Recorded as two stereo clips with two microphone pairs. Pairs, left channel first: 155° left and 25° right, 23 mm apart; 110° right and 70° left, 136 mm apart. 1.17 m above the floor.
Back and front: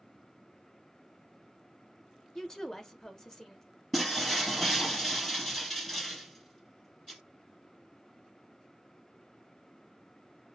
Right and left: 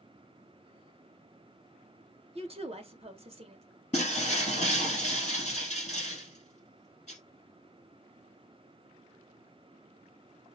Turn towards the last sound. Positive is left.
turn(degrees=-120)